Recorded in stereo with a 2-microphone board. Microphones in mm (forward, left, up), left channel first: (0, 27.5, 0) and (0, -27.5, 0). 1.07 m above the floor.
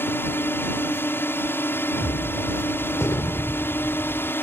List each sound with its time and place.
0.0 s a drone: 45° left (ahead or behind)
2.0 s a gunshot: 60° left (ahead or behind)